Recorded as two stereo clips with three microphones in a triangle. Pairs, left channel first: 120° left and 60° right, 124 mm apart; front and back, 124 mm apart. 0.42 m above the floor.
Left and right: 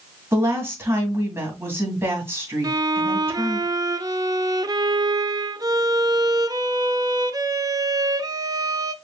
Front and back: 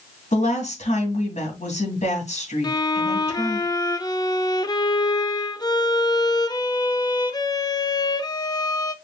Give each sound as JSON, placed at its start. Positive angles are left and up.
{"t": 0.3, "sound": "a woman speaking", "azimuth_deg": 10, "distance_m": 2.5}
{"t": 2.6, "sound": "a violin", "azimuth_deg": -30, "distance_m": 0.5}